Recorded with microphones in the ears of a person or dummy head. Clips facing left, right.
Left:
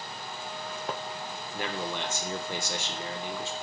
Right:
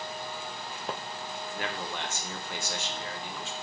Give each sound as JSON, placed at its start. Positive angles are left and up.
{"t": 1.5, "sound": "a man speaking", "side_deg": 75, "distance_m": 0.7}